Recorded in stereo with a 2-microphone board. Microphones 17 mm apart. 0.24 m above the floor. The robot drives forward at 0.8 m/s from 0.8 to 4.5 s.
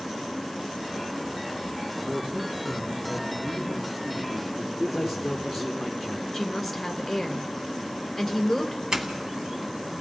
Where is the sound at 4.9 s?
10° right (ahead or behind), 5.5 m.